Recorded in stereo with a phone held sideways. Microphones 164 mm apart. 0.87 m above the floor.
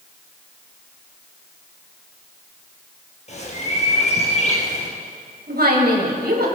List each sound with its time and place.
3.3 s a bird: 45° left (ahead or behind), 3.5 m
5.5 s a woman speaking: 80° right, 4.5 m